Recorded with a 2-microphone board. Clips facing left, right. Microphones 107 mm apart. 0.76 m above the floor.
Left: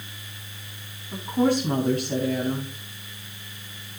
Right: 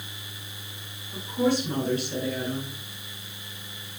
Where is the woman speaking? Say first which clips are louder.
Left 3 dB; 55° left (ahead or behind), 6 m.